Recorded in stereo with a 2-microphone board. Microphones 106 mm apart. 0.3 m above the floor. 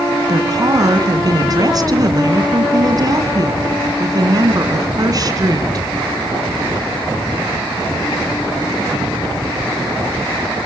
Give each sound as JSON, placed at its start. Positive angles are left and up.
{"t": 0.3, "sound": "a woman speaking", "side_deg": -40, "distance_m": 2.5}